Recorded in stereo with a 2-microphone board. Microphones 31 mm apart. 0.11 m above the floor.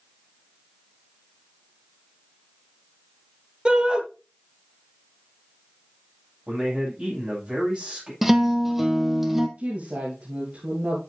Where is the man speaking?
35° right (ahead or behind), 8.5 m.